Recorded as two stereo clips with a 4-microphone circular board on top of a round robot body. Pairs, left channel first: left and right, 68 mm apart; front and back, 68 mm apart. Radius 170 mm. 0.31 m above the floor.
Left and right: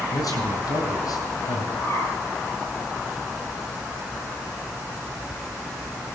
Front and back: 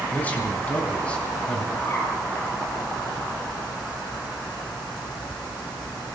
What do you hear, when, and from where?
0.1 s a man speaking: 65° left, 4 m; by 1.6 s 80° left, 3.5 m
1.8 s a bird: 50° left, 9 m